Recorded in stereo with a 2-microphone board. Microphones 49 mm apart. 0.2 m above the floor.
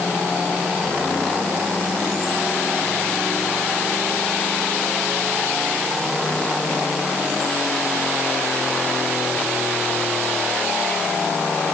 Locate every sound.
Only background noise.